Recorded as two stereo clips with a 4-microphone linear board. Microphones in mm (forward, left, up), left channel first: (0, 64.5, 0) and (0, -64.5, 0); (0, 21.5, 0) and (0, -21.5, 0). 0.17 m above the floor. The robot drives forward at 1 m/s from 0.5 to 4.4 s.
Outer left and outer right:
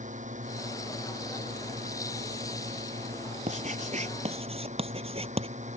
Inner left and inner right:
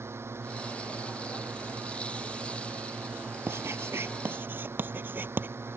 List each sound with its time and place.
0.0 s a drone: 70° right (ahead or behind); by 5.8 s 65° right (ahead or behind)
3.5 s writing: 65° right (ahead or behind); by 5.5 s 50° right (ahead or behind)